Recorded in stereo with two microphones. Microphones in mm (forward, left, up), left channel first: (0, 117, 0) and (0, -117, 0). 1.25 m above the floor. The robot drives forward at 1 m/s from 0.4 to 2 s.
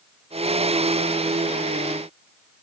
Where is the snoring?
I don't hear snoring.